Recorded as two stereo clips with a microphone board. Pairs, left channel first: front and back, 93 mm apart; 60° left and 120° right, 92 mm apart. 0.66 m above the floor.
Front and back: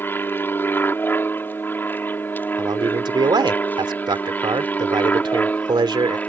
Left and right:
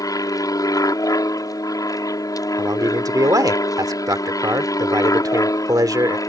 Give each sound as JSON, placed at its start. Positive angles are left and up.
{"t": 0.0, "sound": "an aircraft", "azimuth_deg": 50}
{"t": 2.6, "sound": "a man speaking", "azimuth_deg": -160}